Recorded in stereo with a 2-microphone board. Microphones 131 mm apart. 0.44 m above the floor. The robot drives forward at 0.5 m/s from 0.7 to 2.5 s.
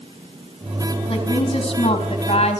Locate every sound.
1.1 s a woman speaking: 35° left (ahead or behind), 4 m; by 2.6 s 45° left (ahead or behind), 3.5 m